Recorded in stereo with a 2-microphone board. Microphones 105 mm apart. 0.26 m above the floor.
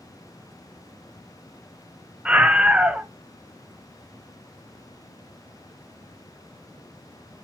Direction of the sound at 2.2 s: 10° right (ahead or behind).